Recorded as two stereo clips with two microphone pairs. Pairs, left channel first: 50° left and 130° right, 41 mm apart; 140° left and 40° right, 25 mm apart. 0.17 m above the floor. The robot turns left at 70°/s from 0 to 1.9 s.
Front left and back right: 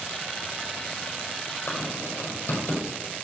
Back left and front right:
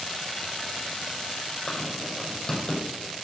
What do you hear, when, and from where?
1.7 s writing: 85° left, 5 m; by 2.8 s 70° left, 5 m